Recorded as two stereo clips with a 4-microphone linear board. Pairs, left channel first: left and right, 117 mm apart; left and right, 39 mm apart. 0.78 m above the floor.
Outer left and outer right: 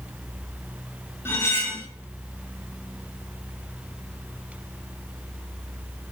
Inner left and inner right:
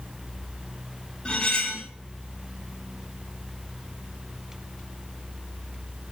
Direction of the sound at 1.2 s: 20° left (ahead or behind).